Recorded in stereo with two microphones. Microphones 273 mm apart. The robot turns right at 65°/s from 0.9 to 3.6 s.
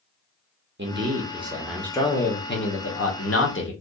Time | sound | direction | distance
0.8 | a man speaking | 55° right | 1.0 m